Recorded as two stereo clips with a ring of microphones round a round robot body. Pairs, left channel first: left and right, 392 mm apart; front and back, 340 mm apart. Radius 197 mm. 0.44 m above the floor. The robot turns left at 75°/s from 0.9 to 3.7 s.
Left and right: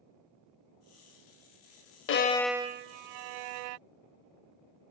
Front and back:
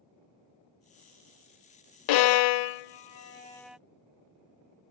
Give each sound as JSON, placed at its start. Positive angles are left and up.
{"t": 2.1, "sound": "a violin", "azimuth_deg": 30}